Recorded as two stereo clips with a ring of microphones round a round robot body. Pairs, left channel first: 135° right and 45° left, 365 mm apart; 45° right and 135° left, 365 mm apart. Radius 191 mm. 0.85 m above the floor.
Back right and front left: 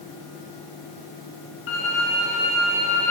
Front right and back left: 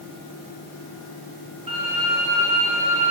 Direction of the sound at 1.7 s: 150° right.